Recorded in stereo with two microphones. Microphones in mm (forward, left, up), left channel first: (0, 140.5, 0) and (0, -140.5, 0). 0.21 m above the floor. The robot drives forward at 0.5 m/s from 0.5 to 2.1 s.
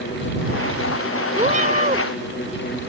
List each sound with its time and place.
1.4 s a cat meowing: 25° right (ahead or behind)